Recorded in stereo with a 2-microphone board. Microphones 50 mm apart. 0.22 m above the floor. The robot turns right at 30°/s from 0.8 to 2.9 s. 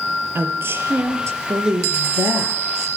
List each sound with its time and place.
0.3 s a woman speaking: 125° right, 4 m; by 2.9 s 60° right, 4 m